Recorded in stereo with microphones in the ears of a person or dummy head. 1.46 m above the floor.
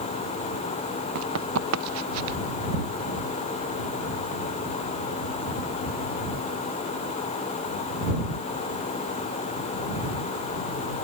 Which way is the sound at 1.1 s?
85° right.